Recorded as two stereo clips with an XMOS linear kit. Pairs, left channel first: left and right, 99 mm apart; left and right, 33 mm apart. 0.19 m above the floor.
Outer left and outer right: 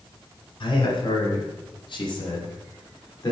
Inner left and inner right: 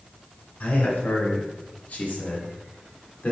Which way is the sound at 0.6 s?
55° left (ahead or behind).